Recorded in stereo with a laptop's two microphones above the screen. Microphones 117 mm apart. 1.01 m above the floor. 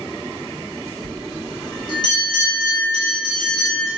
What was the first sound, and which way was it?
A bell, 40° left (ahead or behind).